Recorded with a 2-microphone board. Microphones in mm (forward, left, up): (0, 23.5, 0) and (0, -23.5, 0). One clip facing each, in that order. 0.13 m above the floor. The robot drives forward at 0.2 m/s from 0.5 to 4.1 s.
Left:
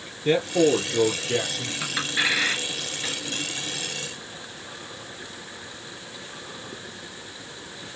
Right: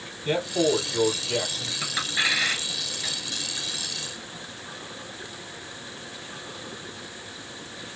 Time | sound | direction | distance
0.2 | a man speaking | 50° left (ahead or behind) | 3 m
1.8 | a clink | 10° left (ahead or behind) | 1.5 m